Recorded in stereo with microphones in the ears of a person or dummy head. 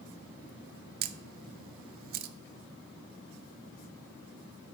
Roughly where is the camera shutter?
Right.